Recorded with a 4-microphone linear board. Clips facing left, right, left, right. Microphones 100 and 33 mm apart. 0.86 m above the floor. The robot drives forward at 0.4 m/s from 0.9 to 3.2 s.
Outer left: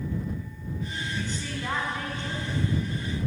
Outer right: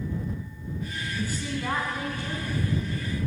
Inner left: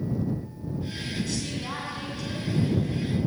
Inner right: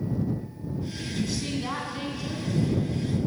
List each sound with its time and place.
1.1 s a woman speaking: 10° right (ahead or behind), 7.5 m